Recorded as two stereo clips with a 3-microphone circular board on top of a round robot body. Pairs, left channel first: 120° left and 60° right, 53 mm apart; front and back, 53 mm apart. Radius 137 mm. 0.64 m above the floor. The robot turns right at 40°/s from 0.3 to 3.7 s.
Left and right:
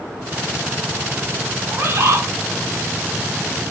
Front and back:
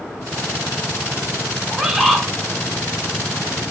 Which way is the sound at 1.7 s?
100° right.